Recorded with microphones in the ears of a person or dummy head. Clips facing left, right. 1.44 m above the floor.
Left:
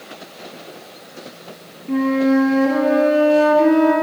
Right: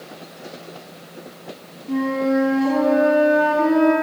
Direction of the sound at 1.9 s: Centre (ahead or behind).